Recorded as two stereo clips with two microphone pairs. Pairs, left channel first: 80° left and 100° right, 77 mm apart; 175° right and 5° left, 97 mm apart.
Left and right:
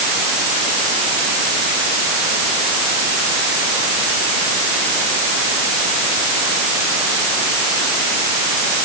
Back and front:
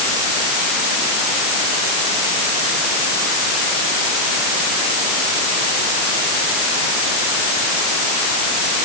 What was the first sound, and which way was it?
Only background noise.